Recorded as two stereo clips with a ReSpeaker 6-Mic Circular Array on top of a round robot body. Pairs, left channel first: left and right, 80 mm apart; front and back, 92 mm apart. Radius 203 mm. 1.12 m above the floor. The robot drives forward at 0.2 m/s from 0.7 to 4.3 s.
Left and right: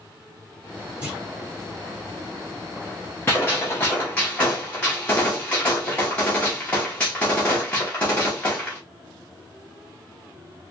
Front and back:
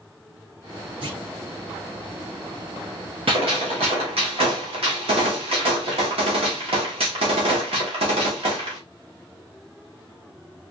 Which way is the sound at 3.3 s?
155° left.